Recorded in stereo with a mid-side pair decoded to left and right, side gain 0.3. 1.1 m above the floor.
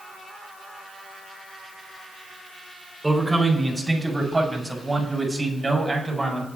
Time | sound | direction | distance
3.0 | a man speaking | 15° right | 4.5 m